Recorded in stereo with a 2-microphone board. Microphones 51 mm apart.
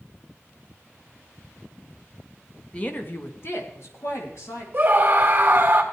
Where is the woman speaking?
25° left (ahead or behind), 1.0 m; by 4.6 s 70° left (ahead or behind), 2.5 m.